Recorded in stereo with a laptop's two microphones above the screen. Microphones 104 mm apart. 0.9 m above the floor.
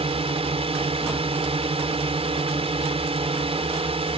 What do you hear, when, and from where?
0.0 s a drone: 70° right (ahead or behind)